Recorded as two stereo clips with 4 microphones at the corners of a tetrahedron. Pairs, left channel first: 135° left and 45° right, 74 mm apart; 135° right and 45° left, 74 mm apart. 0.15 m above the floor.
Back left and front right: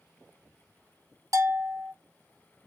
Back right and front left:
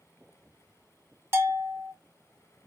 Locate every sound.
1.3 s a bell: 10° right, 0.6 m